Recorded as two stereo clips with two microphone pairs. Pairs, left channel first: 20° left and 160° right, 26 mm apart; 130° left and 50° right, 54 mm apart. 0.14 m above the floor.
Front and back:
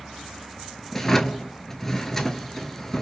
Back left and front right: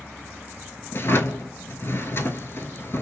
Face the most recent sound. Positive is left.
turn(degrees=100)